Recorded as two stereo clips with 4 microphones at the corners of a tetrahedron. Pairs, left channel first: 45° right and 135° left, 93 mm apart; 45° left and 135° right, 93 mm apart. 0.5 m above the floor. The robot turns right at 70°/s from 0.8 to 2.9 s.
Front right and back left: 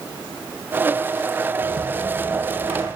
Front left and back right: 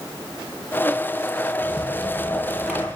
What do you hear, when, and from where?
1.7 s a rattle: 70° left, 8 m; by 2.9 s 155° left, 8 m